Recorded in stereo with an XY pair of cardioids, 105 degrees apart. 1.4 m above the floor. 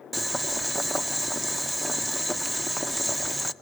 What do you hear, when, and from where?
0.1 s boiling: 15° right, 1.0 m